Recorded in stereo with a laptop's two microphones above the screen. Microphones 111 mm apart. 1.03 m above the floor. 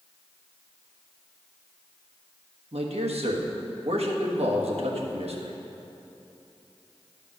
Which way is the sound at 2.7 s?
70° right (ahead or behind).